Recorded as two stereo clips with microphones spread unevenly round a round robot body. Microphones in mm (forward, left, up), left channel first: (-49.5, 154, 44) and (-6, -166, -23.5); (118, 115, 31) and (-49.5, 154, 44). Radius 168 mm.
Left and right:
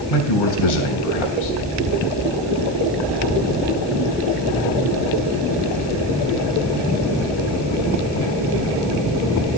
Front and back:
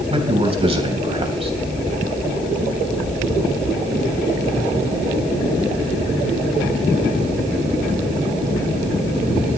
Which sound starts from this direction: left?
A man speaking, at 0.1 s.